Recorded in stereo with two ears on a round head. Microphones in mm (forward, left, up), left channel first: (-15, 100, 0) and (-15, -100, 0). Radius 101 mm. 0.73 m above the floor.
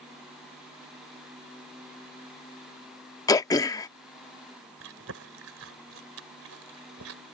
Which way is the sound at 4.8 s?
75° right (ahead or behind).